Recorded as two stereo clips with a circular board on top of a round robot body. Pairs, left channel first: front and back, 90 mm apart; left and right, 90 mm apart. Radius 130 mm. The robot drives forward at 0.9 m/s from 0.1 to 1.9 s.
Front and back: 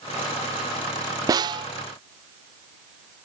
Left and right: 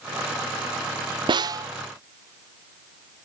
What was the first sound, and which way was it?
A snare drum, 130° right.